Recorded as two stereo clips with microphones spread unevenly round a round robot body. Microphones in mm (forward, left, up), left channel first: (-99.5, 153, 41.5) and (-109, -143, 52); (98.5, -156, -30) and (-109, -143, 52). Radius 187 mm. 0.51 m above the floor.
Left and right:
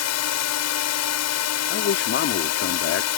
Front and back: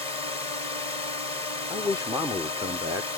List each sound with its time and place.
0.0 s a drone: 95° left
1.7 s a man speaking: 80° left